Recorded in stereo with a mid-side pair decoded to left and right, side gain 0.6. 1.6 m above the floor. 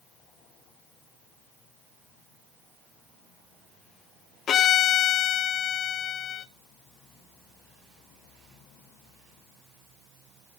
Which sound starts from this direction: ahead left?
A violin, at 4.5 s.